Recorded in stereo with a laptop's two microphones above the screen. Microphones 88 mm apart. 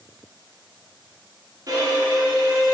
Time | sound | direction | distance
1.7 | a violin | 45° right (ahead or behind) | 1.7 m